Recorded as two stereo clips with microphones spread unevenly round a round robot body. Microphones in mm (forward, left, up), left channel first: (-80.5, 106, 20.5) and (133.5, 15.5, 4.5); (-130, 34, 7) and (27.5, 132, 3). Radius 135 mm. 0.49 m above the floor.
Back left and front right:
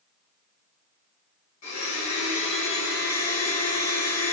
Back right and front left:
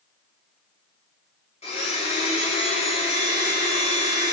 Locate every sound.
1.6 s a blender: 155° left, 1.9 m